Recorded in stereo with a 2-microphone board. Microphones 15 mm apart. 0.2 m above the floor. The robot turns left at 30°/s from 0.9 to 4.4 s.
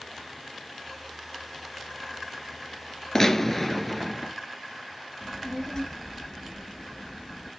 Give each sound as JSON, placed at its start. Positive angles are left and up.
{"t": 3.1, "sound": "a gunshot", "azimuth_deg": 30, "distance_m": 1.4}
{"t": 5.2, "sound": "a child speaking", "side_deg": 35, "distance_m": 1.9}